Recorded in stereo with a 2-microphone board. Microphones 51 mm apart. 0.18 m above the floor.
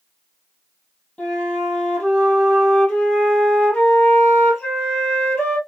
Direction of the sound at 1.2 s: 20° left (ahead or behind).